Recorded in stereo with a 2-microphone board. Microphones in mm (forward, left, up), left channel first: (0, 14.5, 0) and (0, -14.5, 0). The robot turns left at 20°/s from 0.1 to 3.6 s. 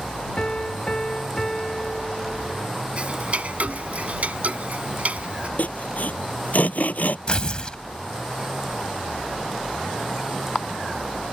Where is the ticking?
45° right (ahead or behind); by 5.5 s 60° right (ahead or behind).